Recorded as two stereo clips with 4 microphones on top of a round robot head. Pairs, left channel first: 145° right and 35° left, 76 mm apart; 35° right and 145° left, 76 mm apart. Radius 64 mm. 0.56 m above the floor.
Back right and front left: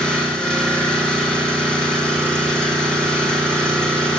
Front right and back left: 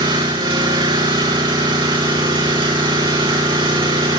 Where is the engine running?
135° left, 6 m.